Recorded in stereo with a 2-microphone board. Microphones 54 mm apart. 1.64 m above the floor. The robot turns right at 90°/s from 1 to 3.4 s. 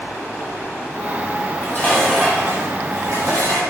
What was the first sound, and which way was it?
Dishes clattering, 115° left.